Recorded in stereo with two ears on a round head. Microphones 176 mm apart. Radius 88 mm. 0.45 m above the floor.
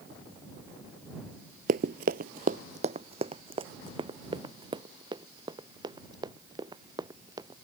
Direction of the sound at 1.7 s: 45° right (ahead or behind).